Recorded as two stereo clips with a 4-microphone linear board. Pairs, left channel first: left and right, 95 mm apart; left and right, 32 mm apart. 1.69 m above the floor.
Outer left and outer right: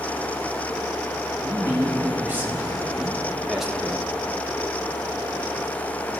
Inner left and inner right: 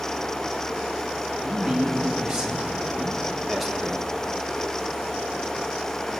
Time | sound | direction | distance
1.4 | a man speaking | 30° right (ahead or behind) | 2.5 m